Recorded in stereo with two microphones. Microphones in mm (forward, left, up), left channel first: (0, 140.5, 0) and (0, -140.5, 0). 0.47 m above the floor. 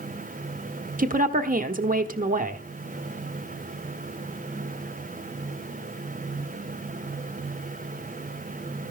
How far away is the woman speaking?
About 1.1 m.